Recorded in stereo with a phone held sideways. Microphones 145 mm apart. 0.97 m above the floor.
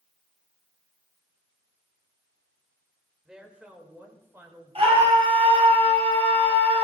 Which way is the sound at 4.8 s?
45° right (ahead or behind).